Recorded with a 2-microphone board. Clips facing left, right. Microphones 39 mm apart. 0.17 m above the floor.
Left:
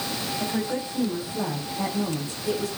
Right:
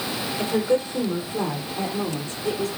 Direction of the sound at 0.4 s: 50° right (ahead or behind).